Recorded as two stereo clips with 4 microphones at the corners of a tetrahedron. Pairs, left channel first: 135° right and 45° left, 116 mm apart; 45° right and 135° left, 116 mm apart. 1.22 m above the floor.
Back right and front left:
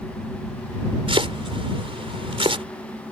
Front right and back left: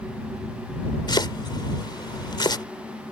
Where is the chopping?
5° left.